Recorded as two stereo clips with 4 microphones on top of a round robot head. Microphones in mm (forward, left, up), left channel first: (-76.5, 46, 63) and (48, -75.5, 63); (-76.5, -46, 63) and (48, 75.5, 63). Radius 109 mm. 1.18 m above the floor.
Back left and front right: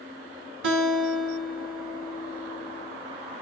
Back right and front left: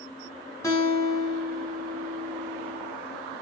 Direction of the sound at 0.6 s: 60° right.